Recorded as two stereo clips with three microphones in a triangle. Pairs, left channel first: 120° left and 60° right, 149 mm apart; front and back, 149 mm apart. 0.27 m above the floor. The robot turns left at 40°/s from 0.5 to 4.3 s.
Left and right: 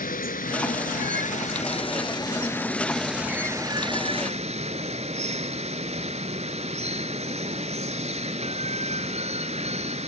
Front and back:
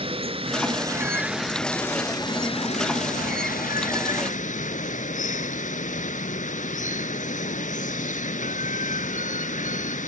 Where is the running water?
130° left, 1.0 m; by 10.1 s 25° right, 1.0 m.